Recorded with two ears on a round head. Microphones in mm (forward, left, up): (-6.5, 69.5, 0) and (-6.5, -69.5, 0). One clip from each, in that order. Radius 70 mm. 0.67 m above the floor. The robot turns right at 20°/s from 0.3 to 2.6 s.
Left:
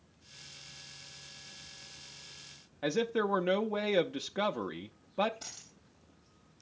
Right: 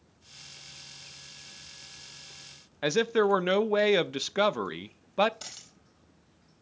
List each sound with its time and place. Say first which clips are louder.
2.8 s a man speaking: right 6 dB; 40° right (ahead or behind), 0.6 m
5.4 s a dropped coin: right 3 dB; 70° right (ahead or behind), 4.5 m